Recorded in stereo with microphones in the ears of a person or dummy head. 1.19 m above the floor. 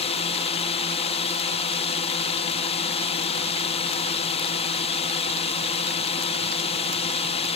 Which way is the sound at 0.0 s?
35° left (ahead or behind).